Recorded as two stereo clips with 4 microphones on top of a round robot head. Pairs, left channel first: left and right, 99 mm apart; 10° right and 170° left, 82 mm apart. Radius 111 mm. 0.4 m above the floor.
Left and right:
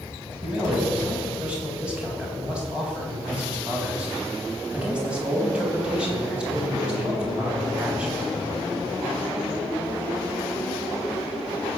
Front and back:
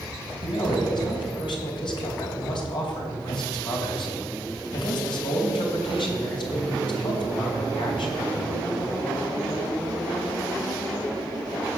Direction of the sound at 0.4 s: 10° right.